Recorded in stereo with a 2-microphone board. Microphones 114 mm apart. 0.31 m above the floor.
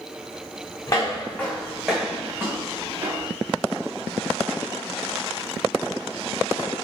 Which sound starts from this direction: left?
Footsteps, at 0.9 s.